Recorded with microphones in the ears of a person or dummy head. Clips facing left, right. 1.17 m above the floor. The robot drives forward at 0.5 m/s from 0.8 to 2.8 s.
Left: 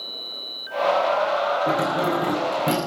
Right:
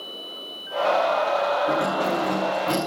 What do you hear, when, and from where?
1.7 s keys jangling: 40° left (ahead or behind), 6 m; by 2.8 s 35° left (ahead or behind), 6 m